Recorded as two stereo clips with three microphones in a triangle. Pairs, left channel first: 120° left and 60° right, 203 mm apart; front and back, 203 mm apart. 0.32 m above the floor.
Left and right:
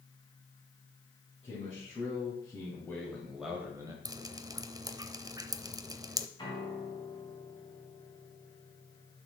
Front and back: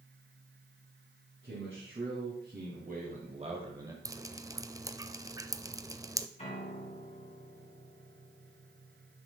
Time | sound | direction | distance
1.4 | a man speaking | straight behind | 3.5 m
4.0 | dripping | 115° right | 0.6 m
6.4 | a piano | 55° left | 3.5 m